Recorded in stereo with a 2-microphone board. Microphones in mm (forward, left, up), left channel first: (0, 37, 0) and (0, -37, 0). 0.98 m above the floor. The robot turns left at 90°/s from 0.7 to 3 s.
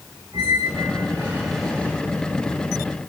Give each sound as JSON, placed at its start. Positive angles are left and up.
{"t": 0.3, "sound": "a squeak", "azimuth_deg": -100, "distance_m": 2.5}